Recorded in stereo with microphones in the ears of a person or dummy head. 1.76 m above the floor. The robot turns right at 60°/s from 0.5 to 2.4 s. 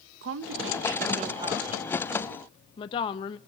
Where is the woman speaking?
85° right, 0.7 m; by 3.4 s 30° left, 0.7 m.